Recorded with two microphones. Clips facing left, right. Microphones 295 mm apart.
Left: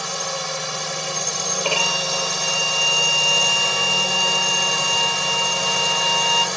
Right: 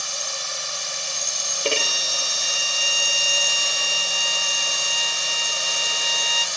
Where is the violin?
20° right (ahead or behind).